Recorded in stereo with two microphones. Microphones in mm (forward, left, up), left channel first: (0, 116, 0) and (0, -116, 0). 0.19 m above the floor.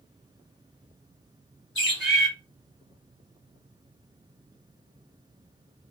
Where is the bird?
55° left (ahead or behind), 2 m.